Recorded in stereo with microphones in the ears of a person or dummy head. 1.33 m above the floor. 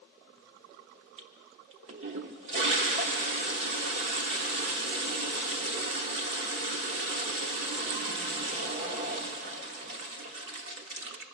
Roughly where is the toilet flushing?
Right.